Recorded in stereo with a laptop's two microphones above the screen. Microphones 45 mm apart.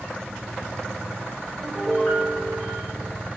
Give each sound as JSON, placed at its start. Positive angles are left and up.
{"t": 1.6, "sound": "a piano", "side_deg": 35, "distance_m": 2.0}